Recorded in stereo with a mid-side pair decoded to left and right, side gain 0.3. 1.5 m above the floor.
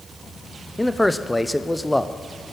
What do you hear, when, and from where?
0.8 s a man speaking: 10° left, 0.6 m